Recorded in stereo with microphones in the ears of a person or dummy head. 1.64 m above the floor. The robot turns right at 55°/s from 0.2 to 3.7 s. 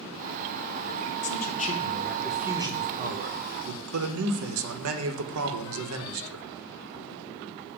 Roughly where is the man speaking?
Behind left.